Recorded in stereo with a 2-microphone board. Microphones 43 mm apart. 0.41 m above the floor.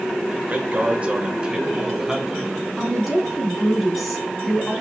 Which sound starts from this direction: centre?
A woman speaking, at 2.8 s.